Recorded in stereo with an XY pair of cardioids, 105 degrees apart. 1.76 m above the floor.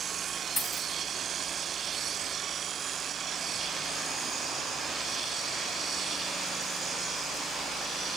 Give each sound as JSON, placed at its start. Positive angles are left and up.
{"t": 0.6, "sound": "a dropped coin", "azimuth_deg": 15, "distance_m": 4.5}